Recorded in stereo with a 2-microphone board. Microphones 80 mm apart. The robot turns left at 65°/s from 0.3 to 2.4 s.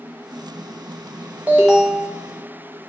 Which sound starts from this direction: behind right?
An alarm, at 1.5 s.